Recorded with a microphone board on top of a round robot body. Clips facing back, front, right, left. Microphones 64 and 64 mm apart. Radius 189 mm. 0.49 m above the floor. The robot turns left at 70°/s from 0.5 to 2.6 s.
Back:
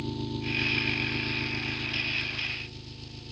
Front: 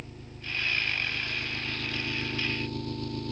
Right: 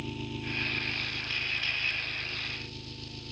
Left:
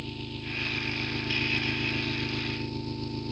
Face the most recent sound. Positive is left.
turn(degrees=40)